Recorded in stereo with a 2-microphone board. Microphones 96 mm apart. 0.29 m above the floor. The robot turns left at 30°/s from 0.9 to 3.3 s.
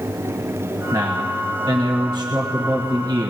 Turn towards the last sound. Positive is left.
turn(degrees=-120)